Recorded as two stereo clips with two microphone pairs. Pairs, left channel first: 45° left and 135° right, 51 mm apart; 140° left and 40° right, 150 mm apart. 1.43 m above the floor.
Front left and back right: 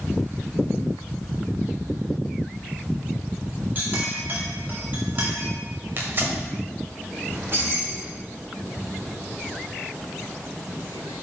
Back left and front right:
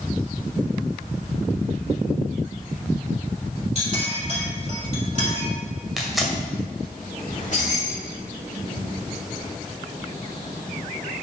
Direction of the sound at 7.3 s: Straight behind.